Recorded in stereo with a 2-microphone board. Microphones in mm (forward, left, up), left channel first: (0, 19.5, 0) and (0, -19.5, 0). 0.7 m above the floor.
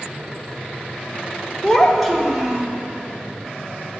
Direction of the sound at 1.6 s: 20° left (ahead or behind).